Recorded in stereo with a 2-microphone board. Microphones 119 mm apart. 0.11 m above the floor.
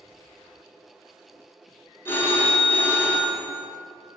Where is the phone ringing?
20° left (ahead or behind), 0.7 m.